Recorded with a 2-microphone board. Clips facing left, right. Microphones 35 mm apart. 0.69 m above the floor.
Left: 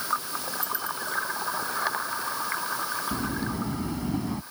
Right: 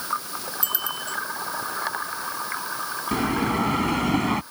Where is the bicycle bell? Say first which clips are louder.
Right 4 dB; 70° right (ahead or behind).